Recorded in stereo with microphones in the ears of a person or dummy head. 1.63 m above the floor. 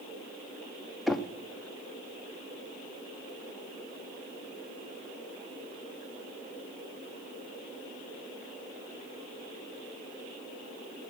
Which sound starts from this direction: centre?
Knocking, at 1.1 s.